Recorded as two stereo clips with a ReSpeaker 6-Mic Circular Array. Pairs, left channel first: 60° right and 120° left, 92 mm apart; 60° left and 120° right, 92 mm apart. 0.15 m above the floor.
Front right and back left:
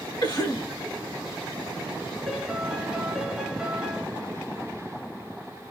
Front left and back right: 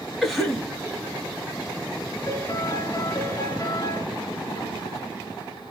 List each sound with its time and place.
0.2 s a cough: 30° right, 2.5 m
2.3 s a piano: 35° left, 0.9 m